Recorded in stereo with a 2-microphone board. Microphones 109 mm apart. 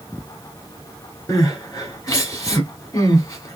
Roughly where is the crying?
Left.